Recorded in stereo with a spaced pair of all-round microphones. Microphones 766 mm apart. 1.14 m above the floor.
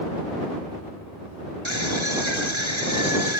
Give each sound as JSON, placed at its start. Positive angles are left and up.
{"t": 1.6, "sound": "a scream", "side_deg": -35}